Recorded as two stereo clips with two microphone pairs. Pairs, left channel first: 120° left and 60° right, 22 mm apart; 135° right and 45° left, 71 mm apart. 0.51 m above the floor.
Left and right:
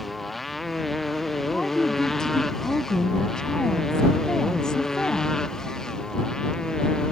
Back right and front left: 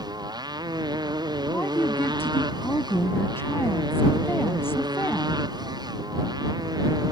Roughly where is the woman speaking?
Behind.